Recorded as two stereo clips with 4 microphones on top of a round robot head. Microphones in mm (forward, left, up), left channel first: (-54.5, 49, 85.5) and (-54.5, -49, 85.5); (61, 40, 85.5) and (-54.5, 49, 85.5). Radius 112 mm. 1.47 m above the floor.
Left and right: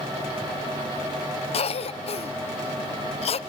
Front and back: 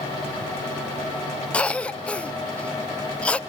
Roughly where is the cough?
Left.